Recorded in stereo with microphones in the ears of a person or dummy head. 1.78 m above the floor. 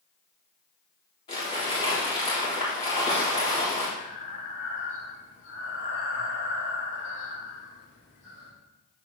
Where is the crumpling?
25° left (ahead or behind), 3.5 m.